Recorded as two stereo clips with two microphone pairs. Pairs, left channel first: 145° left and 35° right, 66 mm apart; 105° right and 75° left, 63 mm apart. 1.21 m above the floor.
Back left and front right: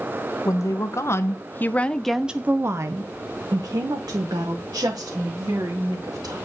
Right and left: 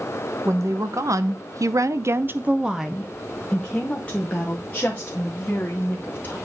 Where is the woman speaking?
110° left, 1.1 m; by 6.4 s 45° right, 2.5 m.